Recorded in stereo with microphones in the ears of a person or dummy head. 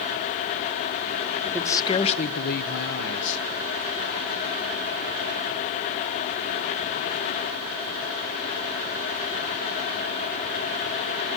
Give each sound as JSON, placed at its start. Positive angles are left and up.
{"t": 1.4, "sound": "a man speaking", "side_deg": 5, "distance_m": 1.4}